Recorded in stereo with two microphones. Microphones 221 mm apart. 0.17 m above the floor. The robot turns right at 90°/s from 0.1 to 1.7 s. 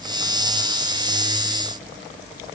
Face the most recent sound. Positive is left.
No sound to turn to.